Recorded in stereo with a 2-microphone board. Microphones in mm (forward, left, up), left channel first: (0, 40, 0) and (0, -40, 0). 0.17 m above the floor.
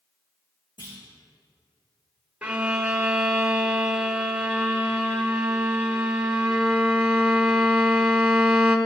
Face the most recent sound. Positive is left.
turn(degrees=-15)  # may be behind; listen again after turning